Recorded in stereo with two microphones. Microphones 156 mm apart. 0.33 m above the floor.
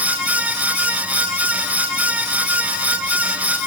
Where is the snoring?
I don't hear snoring.